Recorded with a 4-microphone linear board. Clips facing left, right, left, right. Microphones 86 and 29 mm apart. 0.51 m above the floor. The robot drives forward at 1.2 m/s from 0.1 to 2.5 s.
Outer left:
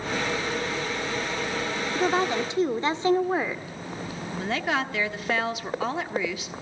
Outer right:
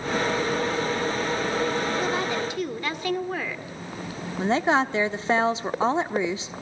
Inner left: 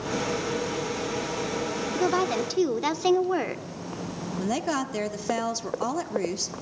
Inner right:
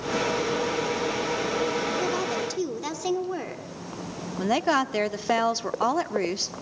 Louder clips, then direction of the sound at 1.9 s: Outer left 2 dB, inner left 2 dB; 30° left (ahead or behind).